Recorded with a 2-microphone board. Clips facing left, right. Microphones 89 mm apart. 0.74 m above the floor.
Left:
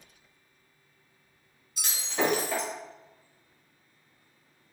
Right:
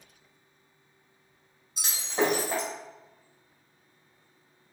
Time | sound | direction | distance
1.8 | breaking glass | 30° right (ahead or behind) | 1.4 m